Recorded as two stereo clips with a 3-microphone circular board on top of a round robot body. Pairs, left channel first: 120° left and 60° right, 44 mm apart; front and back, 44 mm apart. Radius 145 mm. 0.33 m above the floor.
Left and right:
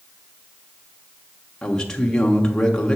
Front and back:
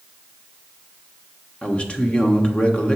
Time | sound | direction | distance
1.6 | a man speaking | 55° left | 1.3 m